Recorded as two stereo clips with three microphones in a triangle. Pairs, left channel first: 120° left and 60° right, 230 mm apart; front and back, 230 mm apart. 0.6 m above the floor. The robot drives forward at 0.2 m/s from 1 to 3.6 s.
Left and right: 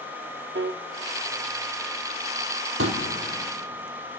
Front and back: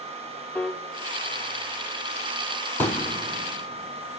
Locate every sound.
0.6 s a piano: 80° right, 0.6 m
2.8 s a pop: 85° right, 3 m